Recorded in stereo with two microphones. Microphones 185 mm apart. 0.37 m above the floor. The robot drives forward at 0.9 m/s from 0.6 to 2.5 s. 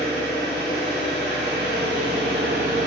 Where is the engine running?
50° right (ahead or behind), 1.9 m; by 2.9 s 55° right (ahead or behind), 1.8 m.